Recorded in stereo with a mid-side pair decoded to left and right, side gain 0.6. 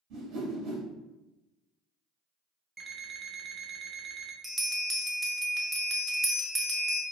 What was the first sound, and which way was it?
A whoosh, 65° right.